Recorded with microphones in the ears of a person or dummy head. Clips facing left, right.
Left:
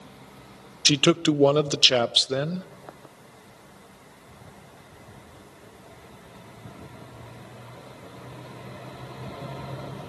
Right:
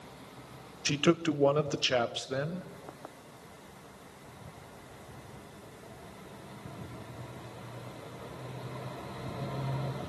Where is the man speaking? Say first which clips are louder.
Left 6 dB; 50° left (ahead or behind), 0.7 m.